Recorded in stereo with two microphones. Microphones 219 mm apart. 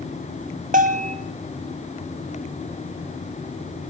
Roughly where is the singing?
No singing in this recording.